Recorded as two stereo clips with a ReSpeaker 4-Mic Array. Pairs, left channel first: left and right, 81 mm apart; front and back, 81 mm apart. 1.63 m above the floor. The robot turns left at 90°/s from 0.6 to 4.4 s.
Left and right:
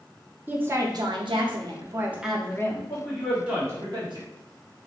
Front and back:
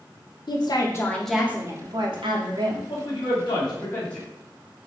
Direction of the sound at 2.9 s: 35° left.